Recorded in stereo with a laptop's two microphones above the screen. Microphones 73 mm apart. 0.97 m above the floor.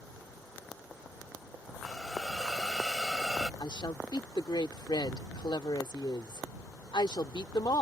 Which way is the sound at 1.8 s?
5° right (ahead or behind).